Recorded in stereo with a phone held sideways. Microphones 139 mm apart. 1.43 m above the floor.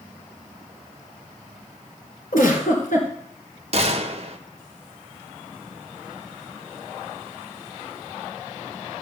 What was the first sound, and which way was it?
A giggle, 70° left (ahead or behind).